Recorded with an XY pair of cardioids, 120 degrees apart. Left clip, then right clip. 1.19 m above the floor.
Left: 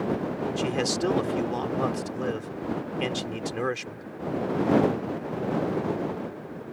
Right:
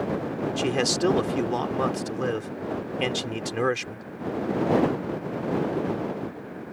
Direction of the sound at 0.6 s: 20° right.